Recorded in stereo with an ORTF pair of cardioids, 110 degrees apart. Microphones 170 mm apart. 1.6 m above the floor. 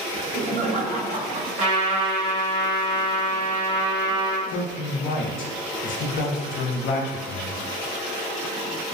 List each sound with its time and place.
0.1 s laughter: 45° right, 0.8 m
1.6 s a trumpet: 45° right, 1.5 m
4.5 s a man speaking: 55° left, 0.6 m